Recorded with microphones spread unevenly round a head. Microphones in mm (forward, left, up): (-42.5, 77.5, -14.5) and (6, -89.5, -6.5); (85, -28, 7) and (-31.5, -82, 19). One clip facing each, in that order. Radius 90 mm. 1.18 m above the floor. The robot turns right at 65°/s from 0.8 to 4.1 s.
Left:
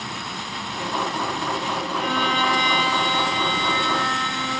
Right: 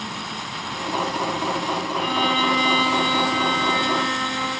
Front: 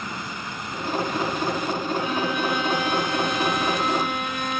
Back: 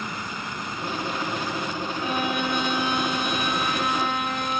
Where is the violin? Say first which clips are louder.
Right 1 dB, back 2 dB; 130° left, 2.5 m; by 4.6 s 90° right, 2.5 m.